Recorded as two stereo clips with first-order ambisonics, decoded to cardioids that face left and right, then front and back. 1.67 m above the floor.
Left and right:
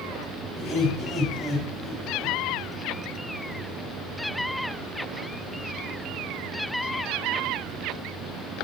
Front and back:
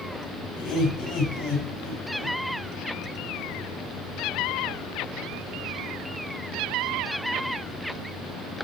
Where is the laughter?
15° left, 6.5 m; by 2.4 s 25° left, 7.5 m.